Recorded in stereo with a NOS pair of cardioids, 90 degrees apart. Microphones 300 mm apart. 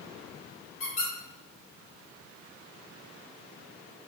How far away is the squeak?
About 1.7 m.